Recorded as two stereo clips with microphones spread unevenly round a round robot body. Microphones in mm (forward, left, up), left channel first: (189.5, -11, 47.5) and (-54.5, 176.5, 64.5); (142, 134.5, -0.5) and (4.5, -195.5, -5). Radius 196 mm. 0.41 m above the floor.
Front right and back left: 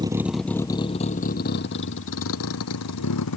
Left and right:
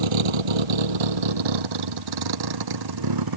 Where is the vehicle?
140° right; by 3.4 s 85° right.